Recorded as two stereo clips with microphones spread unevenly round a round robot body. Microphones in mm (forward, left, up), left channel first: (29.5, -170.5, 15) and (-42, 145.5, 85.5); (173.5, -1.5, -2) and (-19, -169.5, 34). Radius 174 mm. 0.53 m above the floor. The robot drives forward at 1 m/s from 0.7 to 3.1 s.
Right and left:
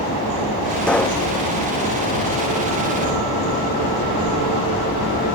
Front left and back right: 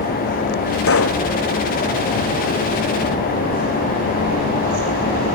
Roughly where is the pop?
Ahead.